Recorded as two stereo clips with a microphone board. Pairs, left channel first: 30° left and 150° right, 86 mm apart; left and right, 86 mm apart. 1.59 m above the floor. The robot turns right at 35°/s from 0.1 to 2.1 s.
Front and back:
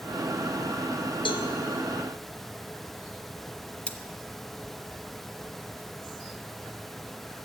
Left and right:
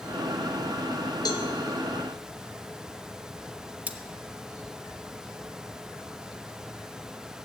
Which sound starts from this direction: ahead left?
A cowbell, at 1.2 s.